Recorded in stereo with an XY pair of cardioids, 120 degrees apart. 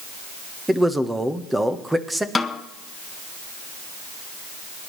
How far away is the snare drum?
About 1.1 m.